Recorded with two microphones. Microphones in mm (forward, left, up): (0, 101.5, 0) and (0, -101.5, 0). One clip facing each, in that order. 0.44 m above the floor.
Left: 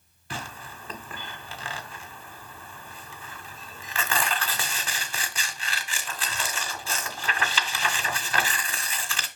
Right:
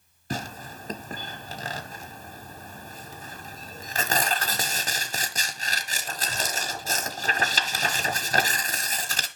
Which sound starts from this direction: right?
Tearing paper, at 0.3 s.